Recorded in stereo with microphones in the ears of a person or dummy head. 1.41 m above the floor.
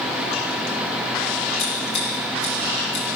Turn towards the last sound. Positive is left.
turn(degrees=65)  # may be behind; listen again after turning